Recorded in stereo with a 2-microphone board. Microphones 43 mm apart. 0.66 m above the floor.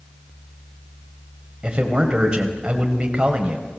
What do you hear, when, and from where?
1.6 s a man speaking: 20° right (ahead or behind), 3 m